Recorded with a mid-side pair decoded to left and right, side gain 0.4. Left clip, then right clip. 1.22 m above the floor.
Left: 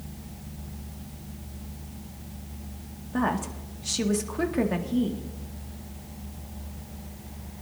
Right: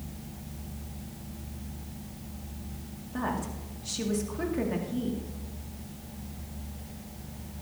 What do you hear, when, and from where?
3.1 s a woman speaking: 45° left, 1.9 m